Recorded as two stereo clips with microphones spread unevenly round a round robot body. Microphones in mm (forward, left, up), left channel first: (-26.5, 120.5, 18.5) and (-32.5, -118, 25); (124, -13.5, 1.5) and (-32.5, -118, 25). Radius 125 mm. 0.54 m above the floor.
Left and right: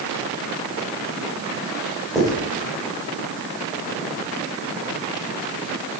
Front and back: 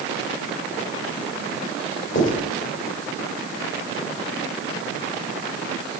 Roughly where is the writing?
Ahead.